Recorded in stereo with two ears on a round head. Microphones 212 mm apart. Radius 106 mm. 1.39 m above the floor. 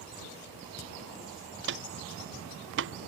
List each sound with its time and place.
1.6 s footsteps: 55° right (ahead or behind)